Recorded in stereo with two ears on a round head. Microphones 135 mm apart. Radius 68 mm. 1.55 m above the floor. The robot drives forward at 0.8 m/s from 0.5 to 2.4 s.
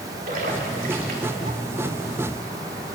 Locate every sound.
0.3 s a splash: 55° right (ahead or behind), 4 m; by 1.6 s 70° right (ahead or behind), 3.5 m